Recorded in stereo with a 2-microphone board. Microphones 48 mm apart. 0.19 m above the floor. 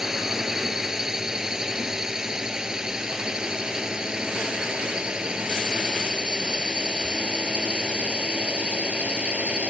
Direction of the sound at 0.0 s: 10° right (ahead or behind).